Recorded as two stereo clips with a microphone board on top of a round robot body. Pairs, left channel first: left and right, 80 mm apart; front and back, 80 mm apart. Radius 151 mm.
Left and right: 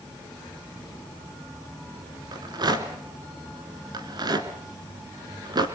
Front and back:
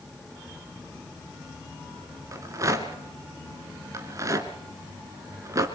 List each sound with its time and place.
2.3 s a rattle: 130° right, 2 m